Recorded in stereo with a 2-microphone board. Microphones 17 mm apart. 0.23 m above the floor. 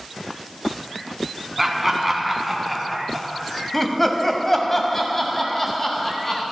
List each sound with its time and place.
1.6 s laughter: 10° right (ahead or behind), 2.0 m; by 6.4 s 25° left (ahead or behind), 1.9 m